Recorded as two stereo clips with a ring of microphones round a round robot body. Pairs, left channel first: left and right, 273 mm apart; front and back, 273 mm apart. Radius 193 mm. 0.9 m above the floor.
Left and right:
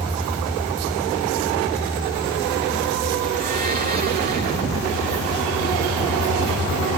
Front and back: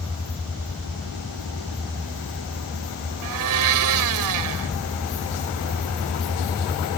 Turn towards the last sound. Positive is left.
turn(degrees=-160)